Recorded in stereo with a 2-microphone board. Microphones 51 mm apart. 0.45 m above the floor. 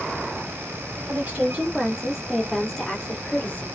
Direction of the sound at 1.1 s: 35° right (ahead or behind).